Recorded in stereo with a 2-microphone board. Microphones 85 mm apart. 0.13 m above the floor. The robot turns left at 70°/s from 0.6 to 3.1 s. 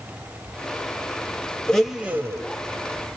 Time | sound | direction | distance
1.7 | a blender | 10° left | 0.7 m